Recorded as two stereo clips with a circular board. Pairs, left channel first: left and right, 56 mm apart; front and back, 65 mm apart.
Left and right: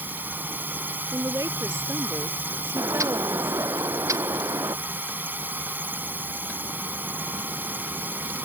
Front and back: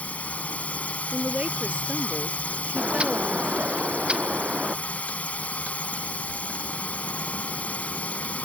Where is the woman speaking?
110° right.